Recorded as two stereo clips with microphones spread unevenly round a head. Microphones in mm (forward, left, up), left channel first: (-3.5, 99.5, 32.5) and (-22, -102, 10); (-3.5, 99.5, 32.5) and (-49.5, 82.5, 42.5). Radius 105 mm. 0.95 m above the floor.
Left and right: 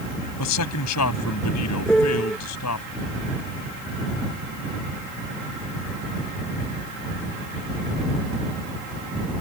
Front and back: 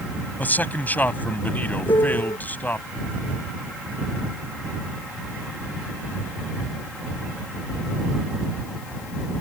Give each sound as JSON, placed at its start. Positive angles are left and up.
{"t": 0.4, "sound": "a man speaking", "azimuth_deg": 75}
{"t": 1.9, "sound": "a piano", "azimuth_deg": -5}